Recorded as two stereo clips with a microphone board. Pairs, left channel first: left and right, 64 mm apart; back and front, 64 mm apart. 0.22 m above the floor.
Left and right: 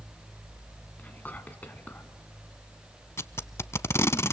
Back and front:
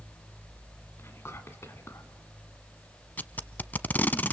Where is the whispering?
150° left, 1.9 m.